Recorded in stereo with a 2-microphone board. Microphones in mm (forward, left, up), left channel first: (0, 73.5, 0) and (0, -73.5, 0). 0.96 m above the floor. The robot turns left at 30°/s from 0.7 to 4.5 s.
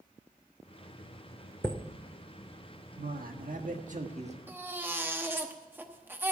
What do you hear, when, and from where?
1.6 s a chime: 10° left (ahead or behind), 0.8 m; by 1.8 s 5° left (ahead or behind), 0.8 m
3.0 s a man speaking: 90° right, 1.4 m; by 4.4 s 135° right, 1.4 m
4.5 s a baby crying: 15° right (ahead or behind), 1.1 m